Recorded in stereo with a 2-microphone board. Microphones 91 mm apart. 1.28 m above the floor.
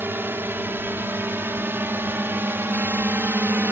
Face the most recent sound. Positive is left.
turn(degrees=-25)  # may be behind; listen again after turning